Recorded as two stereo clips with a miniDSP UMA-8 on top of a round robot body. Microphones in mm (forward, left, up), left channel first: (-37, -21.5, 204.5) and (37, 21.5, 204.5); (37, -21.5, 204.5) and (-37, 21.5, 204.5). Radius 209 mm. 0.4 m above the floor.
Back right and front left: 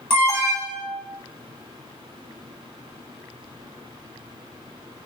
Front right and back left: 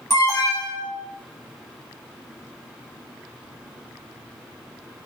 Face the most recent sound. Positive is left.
turn(degrees=-35)